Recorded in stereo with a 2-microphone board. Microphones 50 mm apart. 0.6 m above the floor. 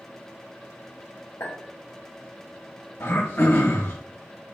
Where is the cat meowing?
No cat meowing in this recording.